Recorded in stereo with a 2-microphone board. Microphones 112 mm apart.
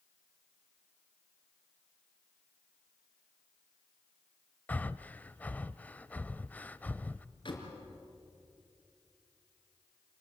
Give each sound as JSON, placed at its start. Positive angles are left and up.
{"t": 4.7, "sound": "breathing", "side_deg": 15, "distance_m": 0.5}
{"t": 7.5, "sound": "a door slam", "side_deg": 50, "distance_m": 4.5}